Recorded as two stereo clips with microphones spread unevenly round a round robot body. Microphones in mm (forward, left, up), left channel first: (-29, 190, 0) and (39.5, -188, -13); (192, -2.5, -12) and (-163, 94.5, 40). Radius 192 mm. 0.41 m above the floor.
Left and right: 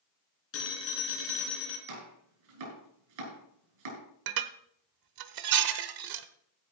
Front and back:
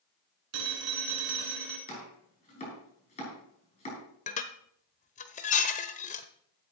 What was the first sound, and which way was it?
A phone ringing, 155° left.